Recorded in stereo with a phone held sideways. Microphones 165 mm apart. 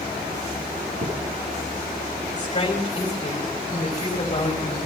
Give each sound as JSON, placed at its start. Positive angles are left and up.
{"t": 1.0, "sound": "a thud", "side_deg": -70, "distance_m": 7.0}
{"t": 2.3, "sound": "a woman speaking", "side_deg": 40, "distance_m": 4.0}